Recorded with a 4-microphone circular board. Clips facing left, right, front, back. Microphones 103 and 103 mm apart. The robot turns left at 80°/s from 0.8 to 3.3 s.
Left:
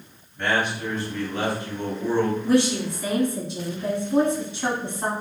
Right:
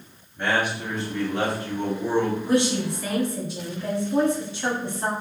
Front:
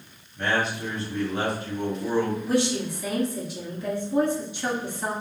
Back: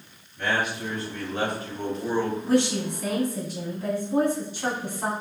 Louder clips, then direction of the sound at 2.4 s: Left 1 dB, back 2 dB; 140° right.